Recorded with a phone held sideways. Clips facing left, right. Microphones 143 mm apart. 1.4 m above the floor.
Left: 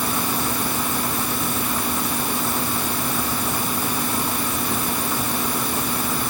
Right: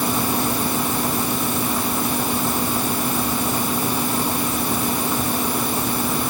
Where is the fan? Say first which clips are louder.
Right 3 dB; 15° right (ahead or behind).